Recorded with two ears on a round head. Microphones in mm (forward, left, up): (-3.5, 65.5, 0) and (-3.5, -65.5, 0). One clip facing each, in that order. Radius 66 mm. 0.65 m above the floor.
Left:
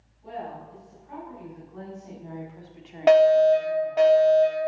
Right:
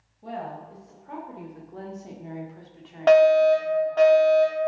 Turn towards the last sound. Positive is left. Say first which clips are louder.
# even
turn(degrees=15)  # may be behind; listen again after turning